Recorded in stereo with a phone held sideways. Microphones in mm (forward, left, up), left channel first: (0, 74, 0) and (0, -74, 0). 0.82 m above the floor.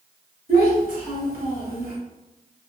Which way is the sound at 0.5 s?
80° right.